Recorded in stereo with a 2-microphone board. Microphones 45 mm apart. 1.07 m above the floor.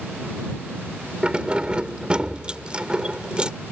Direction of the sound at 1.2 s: 25° right (ahead or behind).